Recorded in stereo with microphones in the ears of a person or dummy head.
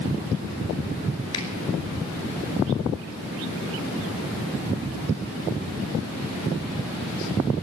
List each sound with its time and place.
1.3 s a finger snap: 30° left (ahead or behind), 3.5 m